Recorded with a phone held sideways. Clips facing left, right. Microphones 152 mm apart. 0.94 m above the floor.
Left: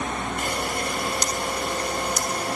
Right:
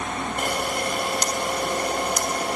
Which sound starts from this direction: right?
A camera shutter, at 0.4 s.